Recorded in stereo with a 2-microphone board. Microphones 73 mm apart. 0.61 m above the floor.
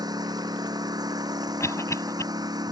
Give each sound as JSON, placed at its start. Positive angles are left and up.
{"t": 0.0, "sound": "a lawn mower", "side_deg": -60}
{"t": 1.6, "sound": "a cough", "side_deg": 40}